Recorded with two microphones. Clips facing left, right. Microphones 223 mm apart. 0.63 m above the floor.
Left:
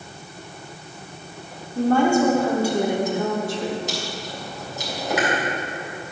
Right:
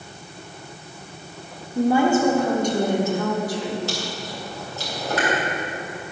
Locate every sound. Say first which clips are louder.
1.8 s a woman speaking: even; 15° right (ahead or behind), 1.6 m; by 3.8 s 30° left (ahead or behind), 1.8 m
3.9 s chewing: right 1 dB; 15° left (ahead or behind), 3.5 m